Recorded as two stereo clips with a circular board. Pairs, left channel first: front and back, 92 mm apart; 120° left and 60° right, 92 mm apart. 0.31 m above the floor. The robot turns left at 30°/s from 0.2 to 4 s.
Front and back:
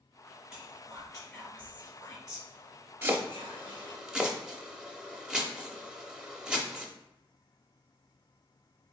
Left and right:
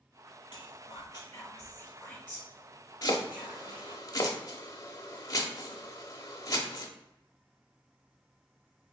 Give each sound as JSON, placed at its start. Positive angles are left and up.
{"t": 0.5, "sound": "whispering", "azimuth_deg": 90, "distance_m": 1.8}
{"t": 3.0, "sound": "chopping", "azimuth_deg": 130, "distance_m": 0.6}